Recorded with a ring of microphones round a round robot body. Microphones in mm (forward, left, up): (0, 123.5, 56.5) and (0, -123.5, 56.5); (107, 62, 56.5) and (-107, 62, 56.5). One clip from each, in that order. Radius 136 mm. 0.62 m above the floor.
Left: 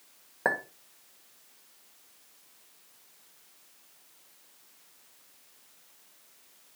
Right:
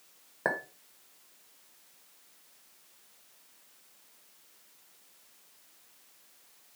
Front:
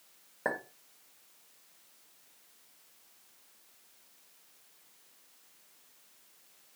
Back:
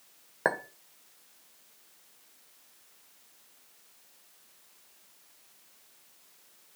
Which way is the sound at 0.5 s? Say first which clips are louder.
Left 3 dB, back 5 dB; 175° left.